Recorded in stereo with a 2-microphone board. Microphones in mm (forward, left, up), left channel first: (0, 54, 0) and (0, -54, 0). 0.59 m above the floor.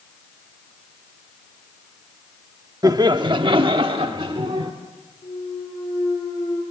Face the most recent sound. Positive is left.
turn(degrees=50)  # may be behind; listen again after turning